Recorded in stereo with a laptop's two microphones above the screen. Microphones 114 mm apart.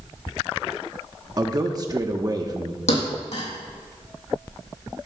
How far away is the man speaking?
About 1.1 m.